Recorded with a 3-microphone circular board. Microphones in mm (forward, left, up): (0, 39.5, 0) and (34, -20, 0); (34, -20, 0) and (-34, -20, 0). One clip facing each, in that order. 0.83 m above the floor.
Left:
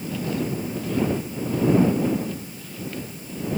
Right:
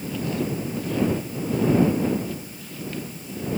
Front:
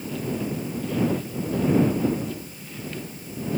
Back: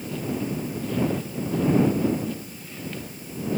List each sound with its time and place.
Only background noise.